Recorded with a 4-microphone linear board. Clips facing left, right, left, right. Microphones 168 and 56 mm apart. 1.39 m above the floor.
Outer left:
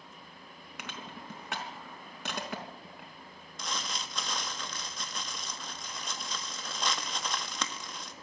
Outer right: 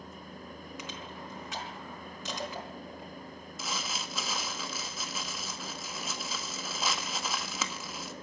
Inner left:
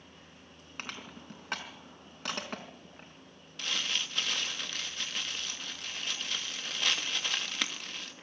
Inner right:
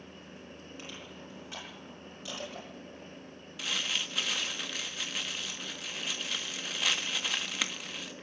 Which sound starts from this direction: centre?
Crumpling, at 3.6 s.